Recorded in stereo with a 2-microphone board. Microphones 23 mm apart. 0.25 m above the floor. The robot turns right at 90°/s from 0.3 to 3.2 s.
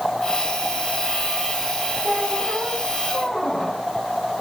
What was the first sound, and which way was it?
A squeak, 85° right.